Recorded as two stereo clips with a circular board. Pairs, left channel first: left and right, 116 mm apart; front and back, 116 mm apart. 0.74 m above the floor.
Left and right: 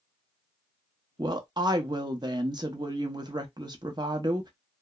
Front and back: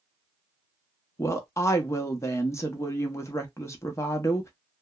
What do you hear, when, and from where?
1.2 s a woman speaking: 55° right, 0.7 m